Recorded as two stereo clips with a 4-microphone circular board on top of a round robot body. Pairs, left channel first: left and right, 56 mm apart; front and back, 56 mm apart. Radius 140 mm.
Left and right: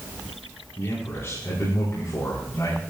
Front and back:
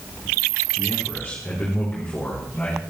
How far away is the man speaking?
About 5 m.